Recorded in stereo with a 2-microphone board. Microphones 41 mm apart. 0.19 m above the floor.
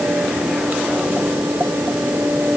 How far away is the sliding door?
I don't hear a sliding door.